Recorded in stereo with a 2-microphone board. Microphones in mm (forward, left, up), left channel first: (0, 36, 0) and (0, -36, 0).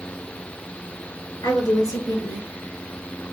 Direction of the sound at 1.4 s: 65° left (ahead or behind).